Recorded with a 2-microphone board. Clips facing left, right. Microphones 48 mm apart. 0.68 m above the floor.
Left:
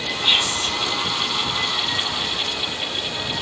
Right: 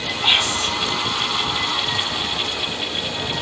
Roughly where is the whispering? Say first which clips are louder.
Right 2 dB; right.